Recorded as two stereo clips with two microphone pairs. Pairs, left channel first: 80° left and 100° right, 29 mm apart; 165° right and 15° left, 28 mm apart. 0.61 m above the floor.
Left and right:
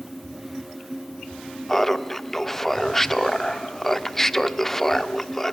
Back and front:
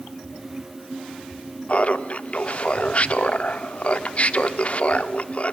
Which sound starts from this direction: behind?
Laughter, at 1.7 s.